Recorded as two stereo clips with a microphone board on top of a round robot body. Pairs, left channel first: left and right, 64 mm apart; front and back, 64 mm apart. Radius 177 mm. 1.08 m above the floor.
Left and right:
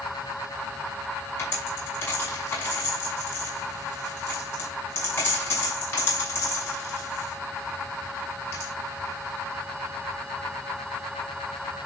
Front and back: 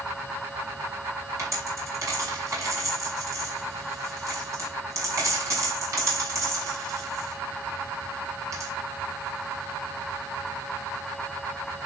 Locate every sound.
1.4 s a dropped coin: 140° left, 5 m